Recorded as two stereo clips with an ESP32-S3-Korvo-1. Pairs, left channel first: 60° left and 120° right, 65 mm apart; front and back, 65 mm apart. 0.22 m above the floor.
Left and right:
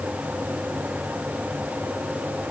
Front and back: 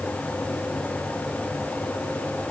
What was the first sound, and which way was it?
Only background noise.